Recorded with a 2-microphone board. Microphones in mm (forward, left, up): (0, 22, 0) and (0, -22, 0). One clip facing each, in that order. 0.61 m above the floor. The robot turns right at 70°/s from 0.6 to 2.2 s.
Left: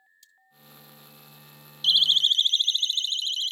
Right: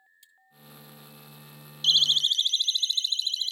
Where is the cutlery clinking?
25° right (ahead or behind).